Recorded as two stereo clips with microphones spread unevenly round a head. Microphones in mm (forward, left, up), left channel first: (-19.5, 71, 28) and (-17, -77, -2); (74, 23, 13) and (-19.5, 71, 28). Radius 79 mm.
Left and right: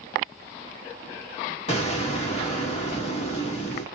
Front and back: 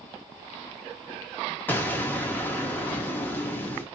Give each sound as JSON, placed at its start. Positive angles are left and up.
{"t": 1.7, "sound": "an explosion", "azimuth_deg": 35, "distance_m": 0.8}